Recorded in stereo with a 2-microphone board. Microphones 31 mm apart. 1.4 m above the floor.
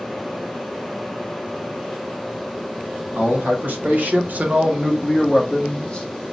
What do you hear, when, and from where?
3.1 s a man speaking: 80° right, 1.5 m; by 6.1 s 30° left (ahead or behind), 1.2 m